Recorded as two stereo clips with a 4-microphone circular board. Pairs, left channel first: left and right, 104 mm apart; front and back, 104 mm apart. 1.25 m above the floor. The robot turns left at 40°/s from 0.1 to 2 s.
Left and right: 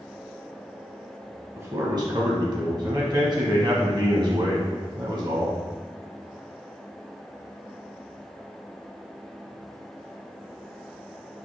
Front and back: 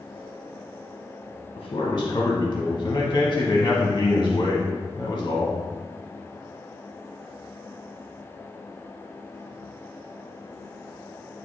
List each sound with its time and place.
1.6 s a man speaking: 40° right, 1.0 m; by 5.6 s 55° right, 1.0 m